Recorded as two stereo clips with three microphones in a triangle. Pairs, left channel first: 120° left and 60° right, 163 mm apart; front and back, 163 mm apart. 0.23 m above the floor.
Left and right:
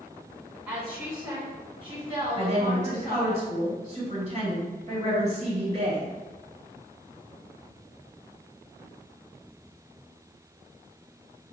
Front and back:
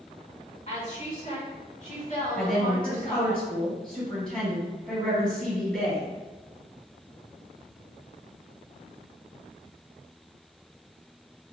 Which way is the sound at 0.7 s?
15° left.